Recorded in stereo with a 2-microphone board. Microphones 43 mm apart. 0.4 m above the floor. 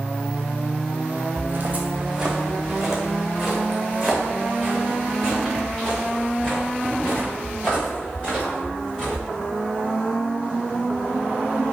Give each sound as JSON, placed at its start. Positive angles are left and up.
{"t": 1.4, "sound": "footsteps", "side_deg": -50, "distance_m": 0.8}